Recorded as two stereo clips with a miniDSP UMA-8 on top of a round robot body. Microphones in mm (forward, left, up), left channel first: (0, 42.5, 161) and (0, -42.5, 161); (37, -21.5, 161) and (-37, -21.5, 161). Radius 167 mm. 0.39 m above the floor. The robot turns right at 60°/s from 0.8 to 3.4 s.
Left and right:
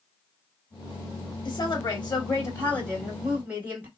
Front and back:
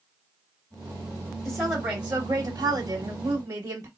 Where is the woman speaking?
85° left, 1.9 m; by 3.9 s 155° right, 1.9 m.